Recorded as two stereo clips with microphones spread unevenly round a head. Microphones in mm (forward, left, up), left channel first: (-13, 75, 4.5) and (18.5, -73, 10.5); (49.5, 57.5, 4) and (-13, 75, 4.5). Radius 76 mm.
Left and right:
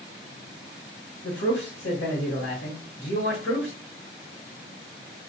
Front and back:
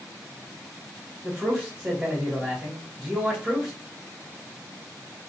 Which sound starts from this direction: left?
A man speaking, at 1.2 s.